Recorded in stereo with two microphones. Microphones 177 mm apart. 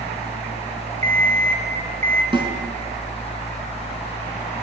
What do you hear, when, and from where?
1.0 s an alarm clock: 40° right (ahead or behind), 5 m
2.3 s a snare drum: 25° right (ahead or behind), 4.5 m